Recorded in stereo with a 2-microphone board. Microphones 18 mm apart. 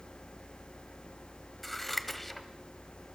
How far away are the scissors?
About 1.3 m.